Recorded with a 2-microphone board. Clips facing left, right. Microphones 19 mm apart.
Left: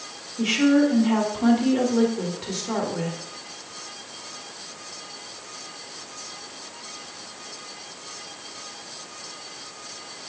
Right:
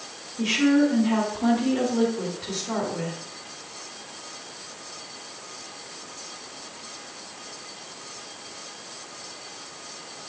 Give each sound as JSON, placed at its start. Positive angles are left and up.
{"t": 0.4, "sound": "a woman speaking", "side_deg": 20, "distance_m": 1.7}